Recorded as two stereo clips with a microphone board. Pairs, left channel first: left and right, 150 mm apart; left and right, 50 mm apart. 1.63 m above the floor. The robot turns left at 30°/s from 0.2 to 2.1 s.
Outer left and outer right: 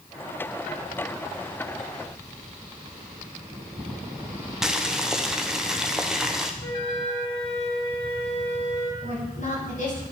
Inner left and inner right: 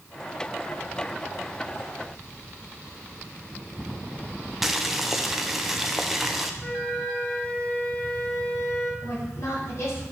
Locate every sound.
4.6 s boiling: 5° right (ahead or behind), 0.9 m
6.6 s a flute: 40° left (ahead or behind), 3 m
9.0 s a woman speaking: 55° left (ahead or behind), 6.5 m